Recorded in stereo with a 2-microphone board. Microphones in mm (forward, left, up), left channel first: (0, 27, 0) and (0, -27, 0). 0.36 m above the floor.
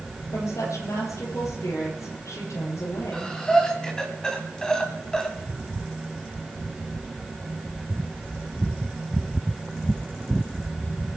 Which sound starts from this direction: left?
A woman speaking, at 0.3 s.